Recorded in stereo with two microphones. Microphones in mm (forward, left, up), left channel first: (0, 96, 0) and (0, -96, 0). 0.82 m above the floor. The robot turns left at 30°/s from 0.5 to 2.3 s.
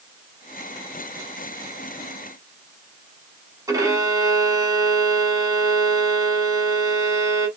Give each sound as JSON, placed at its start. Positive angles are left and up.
{"t": 3.7, "sound": "a violin", "side_deg": -20, "distance_m": 1.5}